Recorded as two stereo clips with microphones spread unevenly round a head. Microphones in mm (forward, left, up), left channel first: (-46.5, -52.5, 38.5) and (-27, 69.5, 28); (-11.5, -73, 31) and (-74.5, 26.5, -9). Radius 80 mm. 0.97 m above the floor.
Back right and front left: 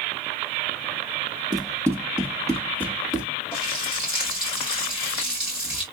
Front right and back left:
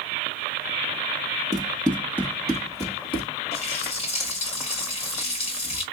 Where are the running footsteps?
15° left, 1.3 m; by 3.3 s 35° right, 1.6 m.